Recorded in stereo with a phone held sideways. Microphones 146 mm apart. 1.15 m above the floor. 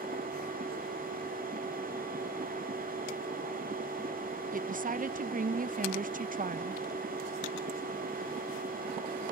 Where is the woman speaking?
70° right (ahead or behind).